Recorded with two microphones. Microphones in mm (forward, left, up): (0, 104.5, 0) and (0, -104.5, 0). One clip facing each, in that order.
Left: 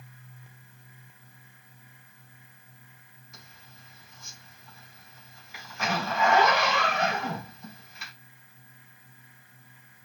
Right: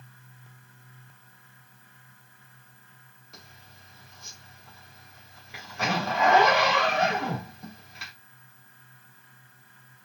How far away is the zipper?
About 3 m.